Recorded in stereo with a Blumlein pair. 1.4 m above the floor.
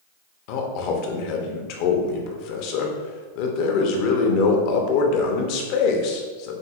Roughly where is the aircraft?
No aircraft in this recording.